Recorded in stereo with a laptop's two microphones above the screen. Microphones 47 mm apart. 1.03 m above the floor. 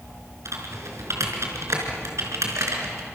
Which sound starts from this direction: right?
Typing on a keyboard, at 0.5 s.